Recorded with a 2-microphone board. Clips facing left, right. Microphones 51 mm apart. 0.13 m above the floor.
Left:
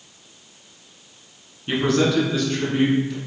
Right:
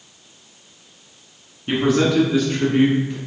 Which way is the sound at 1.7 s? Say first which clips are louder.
Right 2 dB; 10° right (ahead or behind).